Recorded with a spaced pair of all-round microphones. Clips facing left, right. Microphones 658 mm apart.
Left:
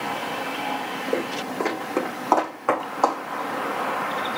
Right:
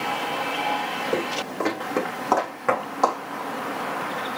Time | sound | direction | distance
1.1 | footsteps | 35° right (ahead or behind) | 5.5 m